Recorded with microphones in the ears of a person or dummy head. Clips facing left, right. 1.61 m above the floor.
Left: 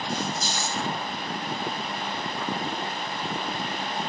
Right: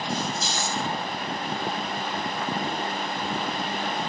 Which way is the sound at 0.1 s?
Centre (ahead or behind).